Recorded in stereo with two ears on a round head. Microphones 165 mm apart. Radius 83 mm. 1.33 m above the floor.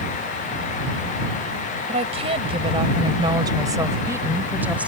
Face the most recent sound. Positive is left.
turn(degrees=-5)  # may be behind; listen again after turning